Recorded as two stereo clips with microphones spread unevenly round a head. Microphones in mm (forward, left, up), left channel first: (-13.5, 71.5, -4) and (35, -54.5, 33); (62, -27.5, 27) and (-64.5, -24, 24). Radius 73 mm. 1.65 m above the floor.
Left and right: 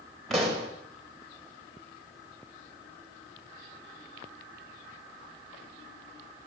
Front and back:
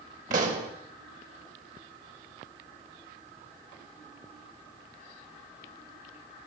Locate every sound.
0.3 s a pop: 160° right, 2.5 m